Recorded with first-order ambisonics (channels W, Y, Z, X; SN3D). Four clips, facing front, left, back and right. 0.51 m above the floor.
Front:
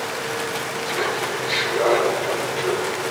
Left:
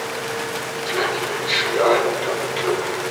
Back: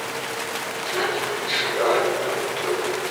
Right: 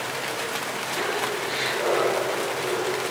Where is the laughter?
110° left, 6.5 m; by 3.0 s 105° left, 4.5 m.